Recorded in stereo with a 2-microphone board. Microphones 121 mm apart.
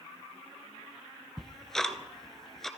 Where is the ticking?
5° left (ahead or behind), 0.9 m.